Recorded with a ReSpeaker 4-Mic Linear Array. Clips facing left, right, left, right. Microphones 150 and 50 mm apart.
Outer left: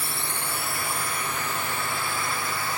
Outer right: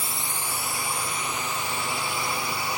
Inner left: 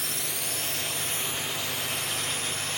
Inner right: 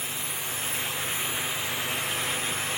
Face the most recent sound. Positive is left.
turn(degrees=50)  # may be behind; listen again after turning